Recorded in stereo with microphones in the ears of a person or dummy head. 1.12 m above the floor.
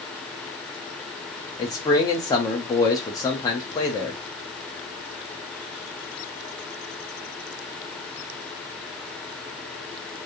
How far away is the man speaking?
About 1.1 m.